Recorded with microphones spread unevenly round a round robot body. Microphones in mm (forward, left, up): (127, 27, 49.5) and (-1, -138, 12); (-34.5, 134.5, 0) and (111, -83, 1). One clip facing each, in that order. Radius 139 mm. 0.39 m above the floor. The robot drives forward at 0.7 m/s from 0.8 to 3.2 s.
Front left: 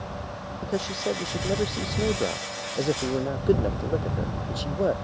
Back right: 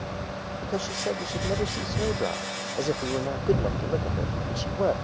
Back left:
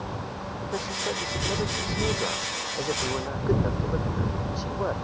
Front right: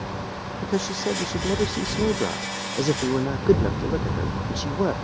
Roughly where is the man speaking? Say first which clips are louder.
Front left 2 dB, front right 7 dB; ahead.